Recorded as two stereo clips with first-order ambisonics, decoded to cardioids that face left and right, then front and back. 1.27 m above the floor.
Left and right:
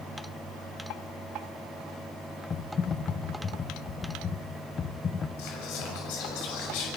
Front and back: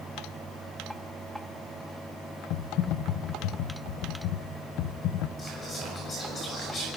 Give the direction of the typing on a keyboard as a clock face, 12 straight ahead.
11 o'clock.